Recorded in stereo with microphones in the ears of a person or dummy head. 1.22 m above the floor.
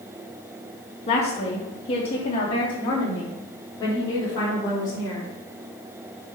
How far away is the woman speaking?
About 1.8 m.